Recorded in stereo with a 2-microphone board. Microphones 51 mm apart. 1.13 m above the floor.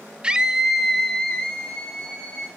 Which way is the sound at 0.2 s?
20° right (ahead or behind).